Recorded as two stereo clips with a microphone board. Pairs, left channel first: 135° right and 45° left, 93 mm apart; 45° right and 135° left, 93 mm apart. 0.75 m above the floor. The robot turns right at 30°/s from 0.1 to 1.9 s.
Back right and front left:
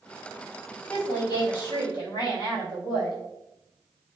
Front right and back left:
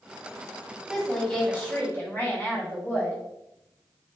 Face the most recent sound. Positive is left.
turn(degrees=-105)